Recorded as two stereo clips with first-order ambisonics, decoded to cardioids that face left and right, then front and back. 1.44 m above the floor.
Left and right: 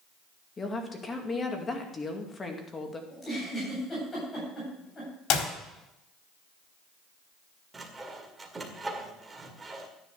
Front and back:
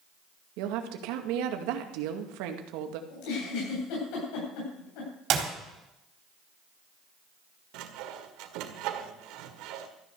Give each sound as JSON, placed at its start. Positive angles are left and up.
{"t": 0.6, "sound": "a woman speaking", "azimuth_deg": 165, "distance_m": 2.0}
{"t": 3.1, "sound": "a giggle", "azimuth_deg": 15, "distance_m": 8.5}
{"t": 5.3, "sound": "a clap", "azimuth_deg": 130, "distance_m": 4.0}
{"t": 7.7, "sound": "sawing", "azimuth_deg": -165, "distance_m": 1.9}